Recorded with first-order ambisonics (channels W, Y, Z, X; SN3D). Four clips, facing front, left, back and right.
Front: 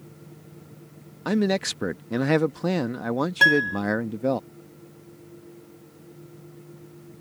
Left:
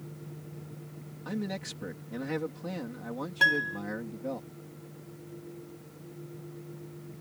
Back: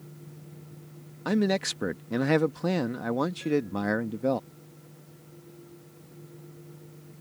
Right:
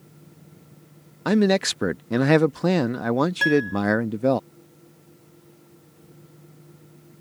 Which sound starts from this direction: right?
A man speaking, at 1.2 s.